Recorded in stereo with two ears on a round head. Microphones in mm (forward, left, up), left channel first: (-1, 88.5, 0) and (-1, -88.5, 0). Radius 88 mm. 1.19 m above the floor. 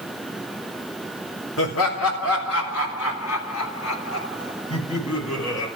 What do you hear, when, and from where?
1.6 s laughter: 75° left (ahead or behind), 4.5 m; by 5.7 s 70° left (ahead or behind), 8.5 m